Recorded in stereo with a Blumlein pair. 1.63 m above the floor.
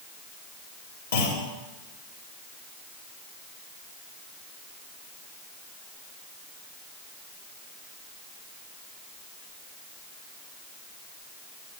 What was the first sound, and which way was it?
A clunk, 70° left.